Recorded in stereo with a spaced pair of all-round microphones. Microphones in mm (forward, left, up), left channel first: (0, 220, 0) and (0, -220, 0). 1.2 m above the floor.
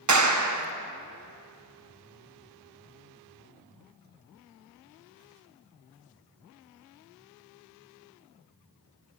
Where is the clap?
45° right (ahead or behind), 0.7 m.